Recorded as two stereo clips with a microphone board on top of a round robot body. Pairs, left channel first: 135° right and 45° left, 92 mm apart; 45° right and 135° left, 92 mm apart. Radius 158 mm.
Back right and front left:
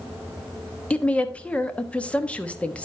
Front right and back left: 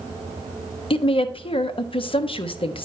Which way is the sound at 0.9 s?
60° right.